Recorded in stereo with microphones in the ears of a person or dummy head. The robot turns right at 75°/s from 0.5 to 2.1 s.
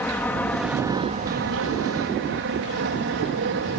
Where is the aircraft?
175° left; by 3.8 s 65° right.